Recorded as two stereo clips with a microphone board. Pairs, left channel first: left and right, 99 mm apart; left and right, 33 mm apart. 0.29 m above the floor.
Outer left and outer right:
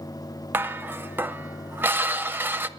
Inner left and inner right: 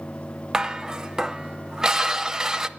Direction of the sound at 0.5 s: 20° right (ahead or behind).